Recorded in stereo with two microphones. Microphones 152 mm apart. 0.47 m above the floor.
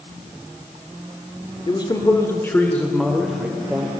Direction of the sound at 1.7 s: 30° left (ahead or behind).